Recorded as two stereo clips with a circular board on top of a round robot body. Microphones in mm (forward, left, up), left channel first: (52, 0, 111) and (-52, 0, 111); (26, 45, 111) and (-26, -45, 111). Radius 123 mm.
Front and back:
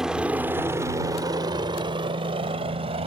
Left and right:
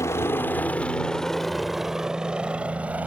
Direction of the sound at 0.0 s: 100° left.